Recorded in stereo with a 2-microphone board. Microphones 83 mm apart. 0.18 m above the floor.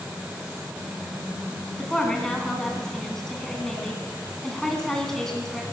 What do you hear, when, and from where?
1.8 s a woman speaking: 5° left (ahead or behind), 1.9 m